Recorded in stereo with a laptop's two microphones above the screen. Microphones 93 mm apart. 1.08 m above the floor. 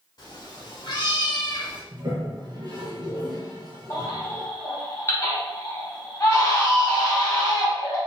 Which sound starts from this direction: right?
A toilet flushing, at 1.9 s.